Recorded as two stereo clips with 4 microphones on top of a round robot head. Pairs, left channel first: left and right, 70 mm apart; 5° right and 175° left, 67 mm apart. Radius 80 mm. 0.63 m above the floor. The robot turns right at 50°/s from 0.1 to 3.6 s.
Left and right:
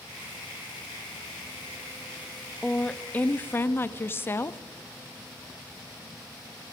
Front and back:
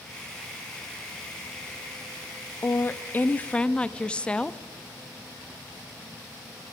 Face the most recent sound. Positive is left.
turn(degrees=60)